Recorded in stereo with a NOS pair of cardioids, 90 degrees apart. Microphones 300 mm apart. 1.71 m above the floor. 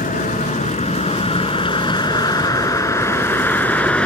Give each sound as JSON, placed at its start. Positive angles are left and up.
{"t": 0.0, "sound": "a vehicle", "azimuth_deg": 25}